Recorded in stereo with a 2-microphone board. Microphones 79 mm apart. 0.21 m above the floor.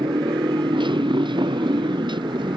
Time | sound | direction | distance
0.0 | a motorcycle | 85° right | ?